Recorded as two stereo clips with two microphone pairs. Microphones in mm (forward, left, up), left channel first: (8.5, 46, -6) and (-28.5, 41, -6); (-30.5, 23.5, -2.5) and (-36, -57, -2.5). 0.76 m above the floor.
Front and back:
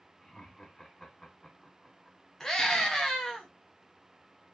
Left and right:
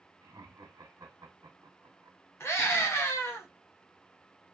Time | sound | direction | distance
0.2 | laughter | 70° right | 1.6 m
2.4 | a scream | 75° left | 1.0 m